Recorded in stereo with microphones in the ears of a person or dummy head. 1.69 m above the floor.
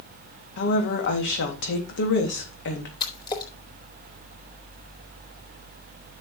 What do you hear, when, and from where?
0.6 s a woman speaking: 65° left (ahead or behind), 3 m
3.0 s a splash: 20° left (ahead or behind), 3.5 m